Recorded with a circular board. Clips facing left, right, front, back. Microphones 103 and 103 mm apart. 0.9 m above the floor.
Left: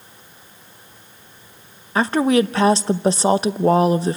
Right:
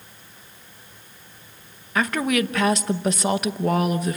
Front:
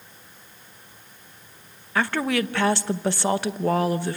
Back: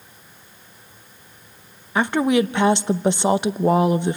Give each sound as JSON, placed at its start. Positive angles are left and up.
{"t": 1.9, "sound": "a woman speaking", "azimuth_deg": 125, "distance_m": 0.7}